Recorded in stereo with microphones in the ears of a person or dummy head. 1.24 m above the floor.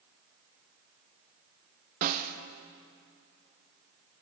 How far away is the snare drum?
About 0.8 m.